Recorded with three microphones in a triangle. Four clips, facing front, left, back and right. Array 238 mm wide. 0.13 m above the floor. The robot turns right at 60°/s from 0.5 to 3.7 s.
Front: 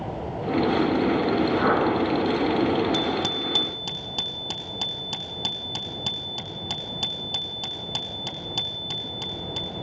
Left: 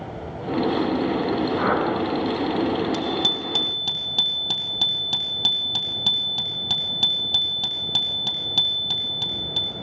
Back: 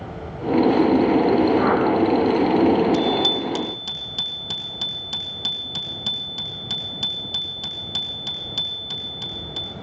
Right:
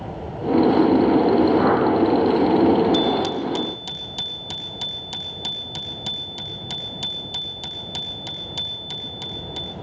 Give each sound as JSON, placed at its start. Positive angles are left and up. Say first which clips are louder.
{"t": 1.6, "sound": "a whoosh", "louder": "right 4 dB, back 3 dB", "azimuth_deg": -65, "distance_m": 8.5}
{"t": 2.9, "sound": "a bicycle bell", "louder": "right 6 dB, back 5 dB", "azimuth_deg": 20, "distance_m": 3.0}